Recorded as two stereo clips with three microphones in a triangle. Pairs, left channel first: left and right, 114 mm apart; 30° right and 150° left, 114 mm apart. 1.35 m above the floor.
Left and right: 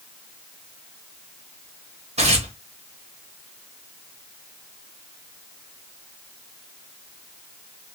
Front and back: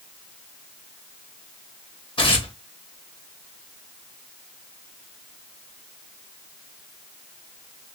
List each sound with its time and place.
2.2 s tearing paper: 75° right, 1.1 m